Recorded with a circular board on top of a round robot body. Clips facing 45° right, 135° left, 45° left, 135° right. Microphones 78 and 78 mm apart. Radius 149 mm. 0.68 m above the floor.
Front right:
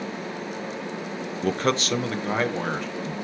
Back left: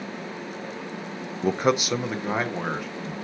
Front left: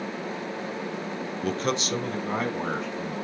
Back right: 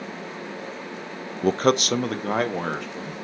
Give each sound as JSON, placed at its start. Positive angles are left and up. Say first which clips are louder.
{"t": 1.4, "sound": "a man speaking", "louder": "back left 2 dB, back right 8 dB", "azimuth_deg": -165, "distance_m": 0.5}